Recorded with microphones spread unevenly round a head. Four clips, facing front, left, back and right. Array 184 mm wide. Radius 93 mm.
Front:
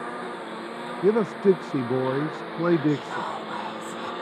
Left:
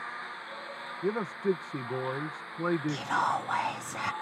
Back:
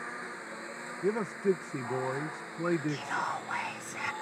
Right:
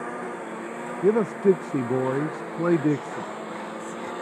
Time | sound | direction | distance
0.0 | a lawn mower | 55° right | ?
1.0 | a man speaking | 50° right | ?
2.9 | whispering | 85° left | ?